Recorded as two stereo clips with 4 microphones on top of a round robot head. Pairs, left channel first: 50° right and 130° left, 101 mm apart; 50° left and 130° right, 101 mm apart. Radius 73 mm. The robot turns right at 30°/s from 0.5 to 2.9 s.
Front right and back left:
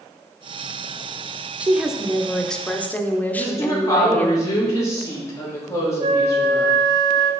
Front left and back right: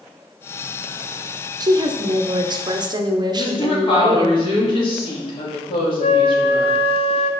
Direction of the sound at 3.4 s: 10° left.